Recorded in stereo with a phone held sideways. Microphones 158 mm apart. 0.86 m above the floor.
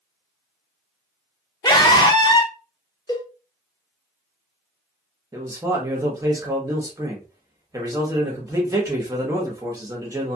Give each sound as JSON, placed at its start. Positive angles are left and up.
{"t": 1.6, "sound": "a scream", "side_deg": 25, "distance_m": 0.6}
{"t": 3.1, "sound": "a cowbell", "side_deg": 25, "distance_m": 0.8}
{"t": 5.3, "sound": "a man speaking", "side_deg": -20, "distance_m": 0.9}